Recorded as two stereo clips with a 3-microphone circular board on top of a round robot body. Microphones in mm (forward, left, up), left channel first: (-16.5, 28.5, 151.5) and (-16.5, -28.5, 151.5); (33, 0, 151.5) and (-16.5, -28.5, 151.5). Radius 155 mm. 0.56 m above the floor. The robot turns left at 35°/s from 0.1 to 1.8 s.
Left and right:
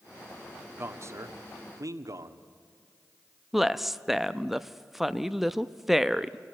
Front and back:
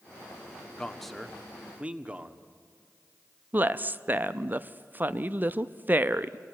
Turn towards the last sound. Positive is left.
turn(degrees=-175)